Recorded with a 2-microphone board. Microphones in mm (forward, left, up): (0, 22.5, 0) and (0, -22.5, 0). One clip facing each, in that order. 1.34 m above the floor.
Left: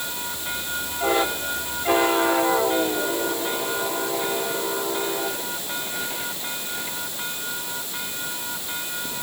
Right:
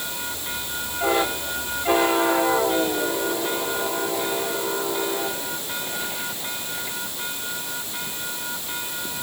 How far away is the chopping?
I don't hear chopping.